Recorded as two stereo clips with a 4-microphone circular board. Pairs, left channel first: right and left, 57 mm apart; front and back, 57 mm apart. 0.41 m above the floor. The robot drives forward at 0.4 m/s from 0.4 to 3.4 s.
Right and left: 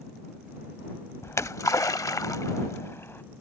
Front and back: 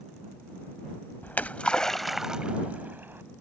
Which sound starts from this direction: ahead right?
A splash, at 1.2 s.